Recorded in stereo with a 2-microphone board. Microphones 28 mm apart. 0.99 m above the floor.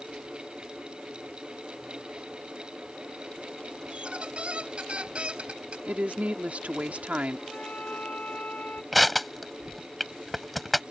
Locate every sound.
3.9 s a squeak: 40° right (ahead or behind)
5.9 s a woman speaking: 55° right (ahead or behind)
7.5 s a flute: 60° left (ahead or behind)
8.9 s crushing: 5° left (ahead or behind)